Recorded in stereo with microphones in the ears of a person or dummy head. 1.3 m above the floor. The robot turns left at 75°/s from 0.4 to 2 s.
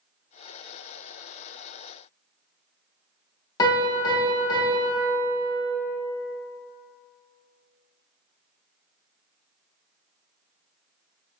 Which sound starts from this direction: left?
A piano, at 3.6 s.